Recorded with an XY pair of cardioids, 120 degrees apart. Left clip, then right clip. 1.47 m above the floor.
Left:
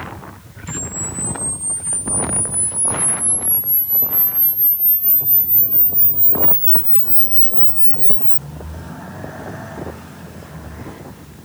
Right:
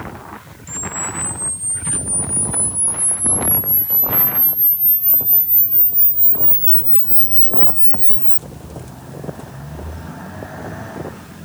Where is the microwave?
I don't hear a microwave.